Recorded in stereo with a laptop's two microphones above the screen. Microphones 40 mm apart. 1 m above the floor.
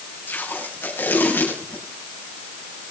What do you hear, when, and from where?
0.3 s tape being pulled: 65° left (ahead or behind), 8 m